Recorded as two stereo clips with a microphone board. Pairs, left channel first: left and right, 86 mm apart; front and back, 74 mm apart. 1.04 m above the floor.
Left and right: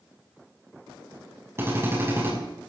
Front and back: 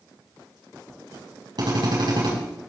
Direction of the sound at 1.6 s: 150° right.